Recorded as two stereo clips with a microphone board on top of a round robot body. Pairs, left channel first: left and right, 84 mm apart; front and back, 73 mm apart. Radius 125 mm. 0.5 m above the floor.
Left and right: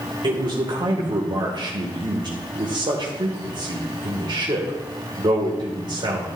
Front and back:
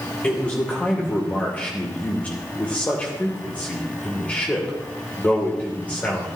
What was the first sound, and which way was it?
A man speaking, 70° right.